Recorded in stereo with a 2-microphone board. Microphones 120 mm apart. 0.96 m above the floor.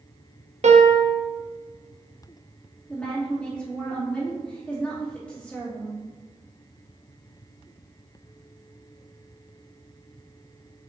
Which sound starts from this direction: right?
A piano, at 0.6 s.